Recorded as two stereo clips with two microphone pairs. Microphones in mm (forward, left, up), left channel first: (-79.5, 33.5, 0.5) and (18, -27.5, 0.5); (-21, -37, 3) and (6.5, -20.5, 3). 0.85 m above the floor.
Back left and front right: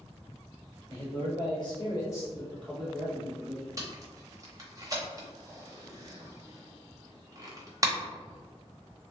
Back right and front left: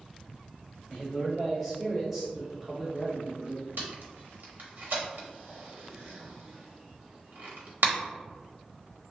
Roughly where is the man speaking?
Behind left.